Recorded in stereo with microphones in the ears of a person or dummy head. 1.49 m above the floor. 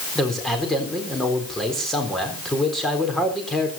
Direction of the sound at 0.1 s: Centre (ahead or behind).